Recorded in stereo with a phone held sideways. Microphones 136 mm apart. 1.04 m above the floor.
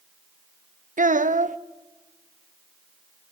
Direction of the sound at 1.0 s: 70° right (ahead or behind).